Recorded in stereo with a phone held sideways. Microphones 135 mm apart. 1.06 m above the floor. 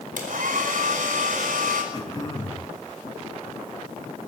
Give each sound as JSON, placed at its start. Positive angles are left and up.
{"t": 0.2, "sound": "a hair dryer", "side_deg": -80, "distance_m": 4.5}
{"t": 1.9, "sound": "throat clearing", "side_deg": 30, "distance_m": 5.0}